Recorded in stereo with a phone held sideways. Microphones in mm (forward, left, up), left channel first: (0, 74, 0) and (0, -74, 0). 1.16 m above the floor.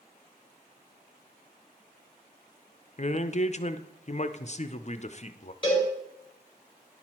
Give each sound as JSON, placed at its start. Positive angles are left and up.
{"t": 3.0, "sound": "a man speaking", "side_deg": 45, "distance_m": 0.6}
{"t": 5.6, "sound": "a cowbell", "side_deg": 30, "distance_m": 4.0}